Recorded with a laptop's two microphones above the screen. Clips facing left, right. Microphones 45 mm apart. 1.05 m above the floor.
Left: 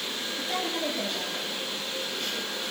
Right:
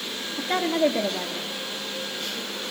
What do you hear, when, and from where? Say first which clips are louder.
0.4 s a woman speaking: right 9 dB; 55° right (ahead or behind), 2 m